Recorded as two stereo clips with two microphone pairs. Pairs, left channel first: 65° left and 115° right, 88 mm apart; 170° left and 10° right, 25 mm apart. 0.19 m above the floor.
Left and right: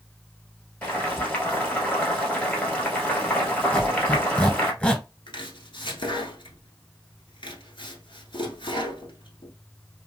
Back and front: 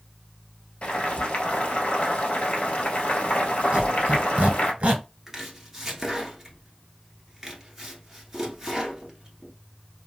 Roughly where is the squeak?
Ahead.